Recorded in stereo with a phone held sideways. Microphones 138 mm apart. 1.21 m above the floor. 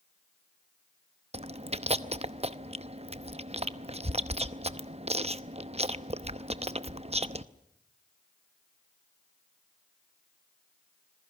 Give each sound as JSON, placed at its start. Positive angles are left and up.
{"t": 1.3, "sound": "chewing", "side_deg": -50, "distance_m": 0.8}